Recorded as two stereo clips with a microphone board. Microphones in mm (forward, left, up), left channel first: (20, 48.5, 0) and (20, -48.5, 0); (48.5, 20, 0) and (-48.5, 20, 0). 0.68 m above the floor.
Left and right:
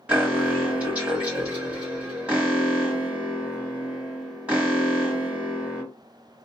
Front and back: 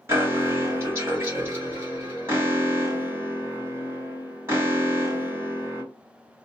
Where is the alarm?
155° right, 1.6 m.